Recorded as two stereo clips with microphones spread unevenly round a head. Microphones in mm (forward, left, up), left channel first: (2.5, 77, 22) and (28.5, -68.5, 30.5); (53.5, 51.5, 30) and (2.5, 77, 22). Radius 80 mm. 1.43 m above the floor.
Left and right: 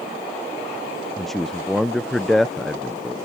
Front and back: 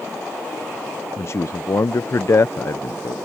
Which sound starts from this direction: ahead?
A man speaking, at 1.2 s.